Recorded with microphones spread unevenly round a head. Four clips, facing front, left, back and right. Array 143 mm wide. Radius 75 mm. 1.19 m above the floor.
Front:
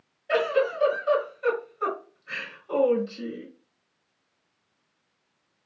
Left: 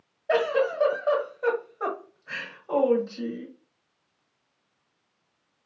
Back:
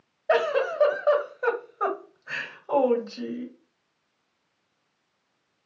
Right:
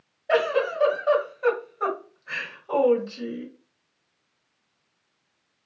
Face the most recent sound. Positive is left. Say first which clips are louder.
# right 1 dB, back 1 dB
turn(degrees=175)